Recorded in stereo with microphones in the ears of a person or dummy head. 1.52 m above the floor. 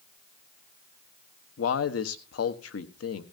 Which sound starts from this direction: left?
A man speaking, at 1.6 s.